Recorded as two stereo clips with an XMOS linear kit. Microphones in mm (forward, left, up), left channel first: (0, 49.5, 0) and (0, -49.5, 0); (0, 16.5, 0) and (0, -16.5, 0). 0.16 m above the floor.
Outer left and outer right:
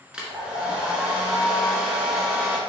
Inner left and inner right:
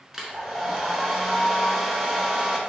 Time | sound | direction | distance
0.1 | a hair dryer | 10° right (ahead or behind) | 1.0 m